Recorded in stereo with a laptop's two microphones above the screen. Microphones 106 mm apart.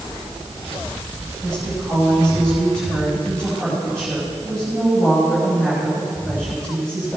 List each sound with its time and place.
1.4 s a woman speaking: 10° left (ahead or behind), 5 m